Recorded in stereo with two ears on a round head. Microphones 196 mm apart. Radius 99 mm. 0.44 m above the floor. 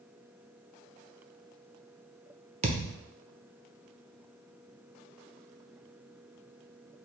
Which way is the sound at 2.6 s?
30° right (ahead or behind).